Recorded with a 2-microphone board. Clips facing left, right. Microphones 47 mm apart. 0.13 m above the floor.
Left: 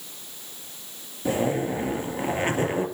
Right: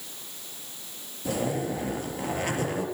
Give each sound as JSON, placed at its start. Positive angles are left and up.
{"t": 1.2, "sound": "a zipper", "side_deg": 35, "distance_m": 3.0}